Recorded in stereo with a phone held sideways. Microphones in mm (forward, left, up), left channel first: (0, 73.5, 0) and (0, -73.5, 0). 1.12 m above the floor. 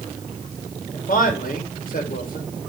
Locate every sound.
0.9 s a man speaking: 70° left (ahead or behind), 3 m